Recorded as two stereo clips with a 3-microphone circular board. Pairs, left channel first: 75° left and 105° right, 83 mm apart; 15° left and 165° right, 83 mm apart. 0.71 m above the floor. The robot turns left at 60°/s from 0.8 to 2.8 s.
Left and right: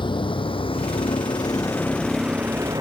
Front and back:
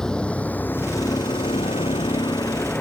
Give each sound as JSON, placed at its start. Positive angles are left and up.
{"t": 0.0, "sound": "a vehicle", "azimuth_deg": 95}